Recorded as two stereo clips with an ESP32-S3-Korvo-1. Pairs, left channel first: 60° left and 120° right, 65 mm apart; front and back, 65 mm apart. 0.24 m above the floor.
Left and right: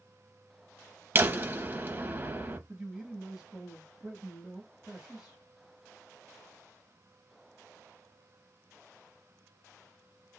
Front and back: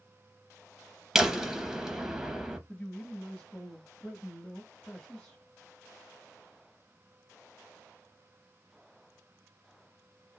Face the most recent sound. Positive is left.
turn(degrees=-60)